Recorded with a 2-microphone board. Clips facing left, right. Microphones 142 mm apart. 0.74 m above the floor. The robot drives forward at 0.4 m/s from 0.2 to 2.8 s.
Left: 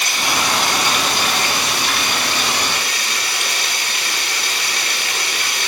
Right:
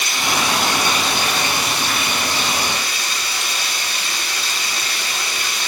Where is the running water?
60° left (ahead or behind), 1.8 m.